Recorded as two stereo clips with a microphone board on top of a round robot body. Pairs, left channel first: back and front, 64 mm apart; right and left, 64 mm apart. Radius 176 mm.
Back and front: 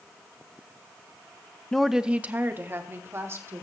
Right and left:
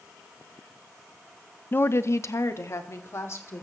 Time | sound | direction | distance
1.7 | a woman speaking | 110° right | 0.7 m